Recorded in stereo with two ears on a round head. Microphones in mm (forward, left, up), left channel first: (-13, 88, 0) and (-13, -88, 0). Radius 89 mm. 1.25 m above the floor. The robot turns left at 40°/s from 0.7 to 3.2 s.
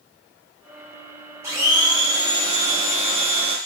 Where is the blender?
25° right, 0.7 m; by 3.6 s 95° right, 0.7 m.